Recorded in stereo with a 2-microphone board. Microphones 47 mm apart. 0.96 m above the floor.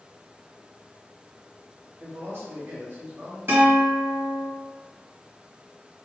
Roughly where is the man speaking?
Right.